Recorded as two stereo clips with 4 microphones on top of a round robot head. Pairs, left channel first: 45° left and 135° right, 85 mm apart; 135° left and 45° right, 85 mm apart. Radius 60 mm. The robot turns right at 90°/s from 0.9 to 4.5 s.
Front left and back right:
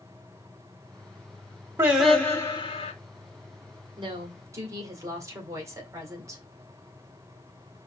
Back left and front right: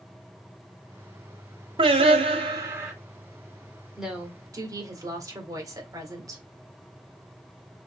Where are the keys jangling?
I don't hear keys jangling.